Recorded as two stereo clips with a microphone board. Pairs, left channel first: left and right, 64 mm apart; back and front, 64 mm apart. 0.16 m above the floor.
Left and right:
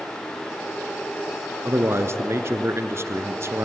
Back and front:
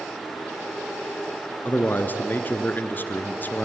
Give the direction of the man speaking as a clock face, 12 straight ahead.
4 o'clock.